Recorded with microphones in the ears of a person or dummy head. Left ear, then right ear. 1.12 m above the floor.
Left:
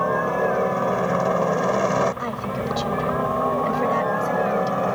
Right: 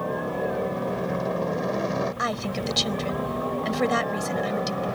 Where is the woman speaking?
40° right (ahead or behind).